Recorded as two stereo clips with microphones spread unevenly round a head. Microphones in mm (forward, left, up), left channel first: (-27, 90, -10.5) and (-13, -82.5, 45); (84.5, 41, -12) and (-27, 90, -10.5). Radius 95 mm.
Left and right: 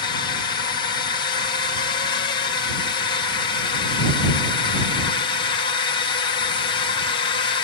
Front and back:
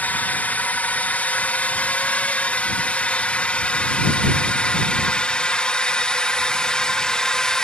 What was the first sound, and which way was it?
A drone, 50° left.